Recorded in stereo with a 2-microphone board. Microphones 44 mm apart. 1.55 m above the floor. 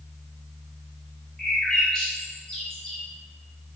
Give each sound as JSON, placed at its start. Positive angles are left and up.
{"t": 1.4, "sound": "a bird", "side_deg": 15, "distance_m": 0.8}